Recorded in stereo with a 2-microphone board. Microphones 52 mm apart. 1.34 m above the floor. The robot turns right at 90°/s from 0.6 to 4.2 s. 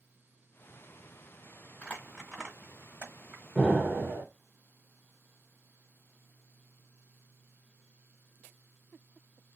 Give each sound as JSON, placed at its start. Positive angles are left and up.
{"t": 1.8, "sound": "crumpling", "side_deg": 20, "distance_m": 1.3}
{"t": 3.5, "sound": "an explosion", "azimuth_deg": -175, "distance_m": 1.1}